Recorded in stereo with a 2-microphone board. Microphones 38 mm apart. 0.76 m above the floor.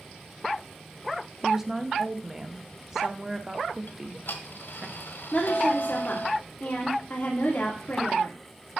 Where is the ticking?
70° left (ahead or behind), 1.2 m.